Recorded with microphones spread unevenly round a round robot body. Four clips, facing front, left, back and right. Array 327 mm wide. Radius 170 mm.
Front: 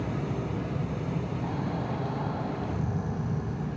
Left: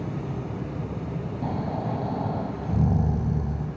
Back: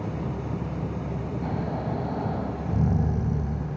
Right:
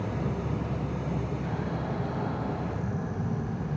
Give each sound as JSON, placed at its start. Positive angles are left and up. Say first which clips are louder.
{"t": 1.4, "sound": "snoring", "louder": "left 4 dB, back 2 dB", "azimuth_deg": 120, "distance_m": 1.9}